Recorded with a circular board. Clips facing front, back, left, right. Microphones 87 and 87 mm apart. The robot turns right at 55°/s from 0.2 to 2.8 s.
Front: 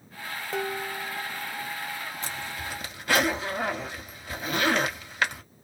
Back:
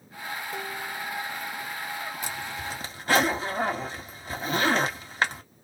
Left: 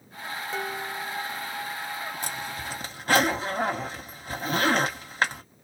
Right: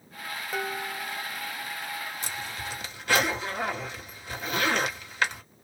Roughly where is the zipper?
Left.